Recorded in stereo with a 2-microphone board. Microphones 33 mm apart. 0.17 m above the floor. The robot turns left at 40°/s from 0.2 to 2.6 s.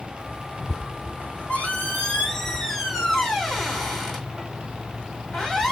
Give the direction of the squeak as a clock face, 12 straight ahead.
10 o'clock.